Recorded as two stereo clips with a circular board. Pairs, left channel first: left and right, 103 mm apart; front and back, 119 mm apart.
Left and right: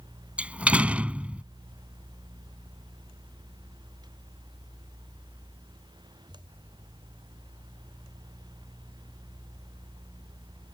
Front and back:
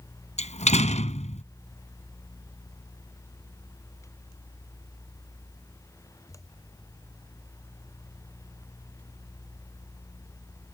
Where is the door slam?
10° right.